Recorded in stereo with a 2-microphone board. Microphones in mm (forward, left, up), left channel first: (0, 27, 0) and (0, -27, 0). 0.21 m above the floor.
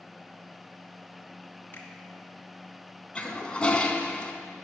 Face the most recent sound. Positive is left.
turn(degrees=20)  # may be behind; listen again after turning